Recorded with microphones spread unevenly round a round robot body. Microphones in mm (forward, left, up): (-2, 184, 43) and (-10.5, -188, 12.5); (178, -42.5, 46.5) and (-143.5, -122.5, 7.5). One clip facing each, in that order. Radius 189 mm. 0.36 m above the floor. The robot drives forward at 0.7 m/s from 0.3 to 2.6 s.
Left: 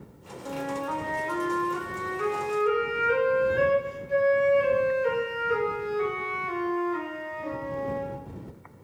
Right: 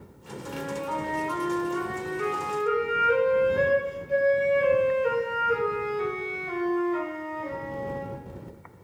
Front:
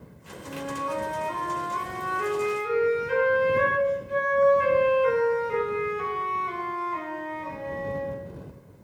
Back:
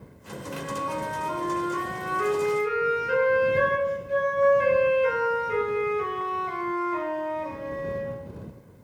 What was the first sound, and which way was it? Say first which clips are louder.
A flute: left 1 dB, front 1 dB; 110° left.